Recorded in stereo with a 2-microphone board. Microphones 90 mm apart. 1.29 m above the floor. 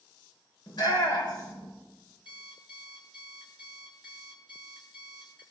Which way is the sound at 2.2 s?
75° left (ahead or behind).